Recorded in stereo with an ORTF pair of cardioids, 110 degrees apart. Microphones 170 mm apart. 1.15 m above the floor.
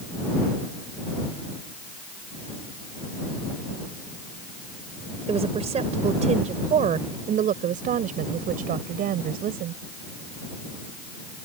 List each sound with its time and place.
5.3 s a woman speaking: 40° right; by 9.8 s 70° right